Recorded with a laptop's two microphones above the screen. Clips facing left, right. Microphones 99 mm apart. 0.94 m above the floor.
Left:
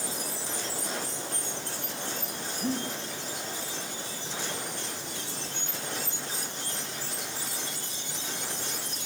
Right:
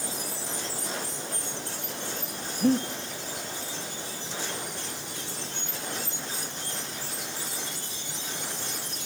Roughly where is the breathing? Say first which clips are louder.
Right 8 dB; right.